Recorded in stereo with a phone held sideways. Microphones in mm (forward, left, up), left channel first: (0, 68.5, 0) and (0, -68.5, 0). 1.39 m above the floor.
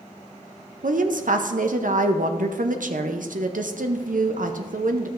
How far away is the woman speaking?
About 0.6 m.